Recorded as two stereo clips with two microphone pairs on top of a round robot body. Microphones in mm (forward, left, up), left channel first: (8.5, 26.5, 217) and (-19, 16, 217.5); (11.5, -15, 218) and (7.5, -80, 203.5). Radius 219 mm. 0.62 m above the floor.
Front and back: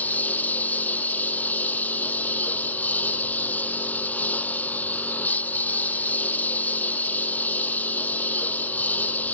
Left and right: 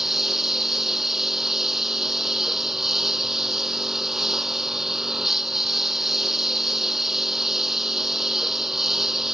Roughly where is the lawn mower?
Ahead.